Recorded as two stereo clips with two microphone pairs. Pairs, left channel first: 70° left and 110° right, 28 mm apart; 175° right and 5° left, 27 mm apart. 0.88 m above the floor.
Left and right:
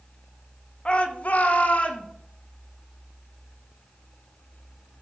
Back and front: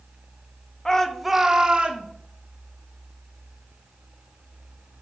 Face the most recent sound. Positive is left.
turn(degrees=40)